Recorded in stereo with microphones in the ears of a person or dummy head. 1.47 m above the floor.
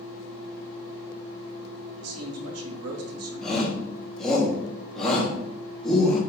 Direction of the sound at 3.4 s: 5° left (ahead or behind).